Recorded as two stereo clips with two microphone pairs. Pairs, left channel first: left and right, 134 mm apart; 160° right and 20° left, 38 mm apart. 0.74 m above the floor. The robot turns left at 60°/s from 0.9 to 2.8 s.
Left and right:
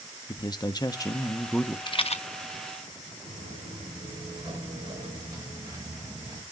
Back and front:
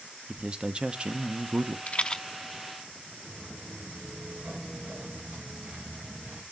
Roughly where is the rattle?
Behind left.